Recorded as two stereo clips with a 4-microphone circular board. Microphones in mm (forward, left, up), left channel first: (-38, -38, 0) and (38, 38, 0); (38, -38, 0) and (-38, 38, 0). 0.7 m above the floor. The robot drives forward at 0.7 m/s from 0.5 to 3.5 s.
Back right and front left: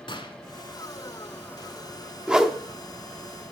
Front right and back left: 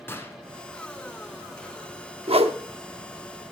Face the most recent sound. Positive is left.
turn(degrees=155)